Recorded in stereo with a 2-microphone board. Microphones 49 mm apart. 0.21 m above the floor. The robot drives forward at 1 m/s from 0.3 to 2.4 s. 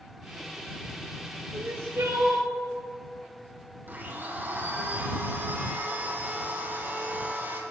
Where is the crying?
65° right (ahead or behind), 3 m; by 2.5 s 75° right (ahead or behind), 2.5 m.